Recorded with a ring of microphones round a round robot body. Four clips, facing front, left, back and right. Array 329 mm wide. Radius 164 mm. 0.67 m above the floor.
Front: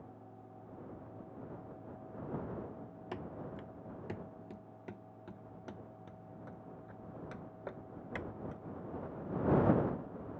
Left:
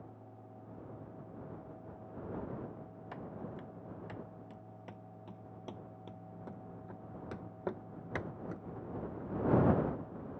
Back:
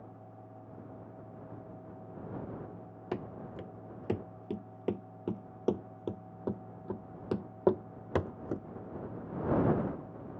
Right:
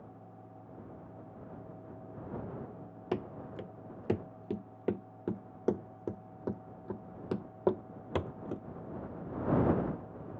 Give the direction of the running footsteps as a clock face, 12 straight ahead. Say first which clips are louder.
Right 8 dB, back 5 dB; 4 o'clock.